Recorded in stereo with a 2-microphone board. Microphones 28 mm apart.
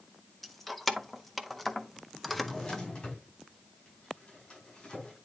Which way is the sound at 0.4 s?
Centre (ahead or behind).